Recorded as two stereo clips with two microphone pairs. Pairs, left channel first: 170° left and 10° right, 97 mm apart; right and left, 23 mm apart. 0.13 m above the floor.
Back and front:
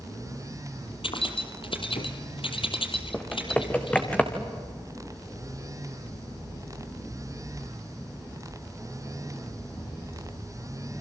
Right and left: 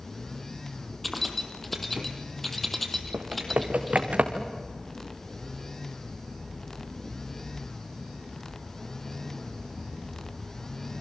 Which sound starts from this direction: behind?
Keys jangling, at 1.0 s.